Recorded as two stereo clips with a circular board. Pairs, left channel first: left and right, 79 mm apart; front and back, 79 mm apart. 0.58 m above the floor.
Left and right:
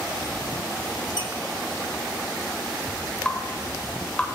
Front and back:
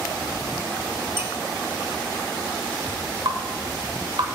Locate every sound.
1.2 s a squeak: 120° left, 2 m
3.2 s dripping: 165° left, 1.4 m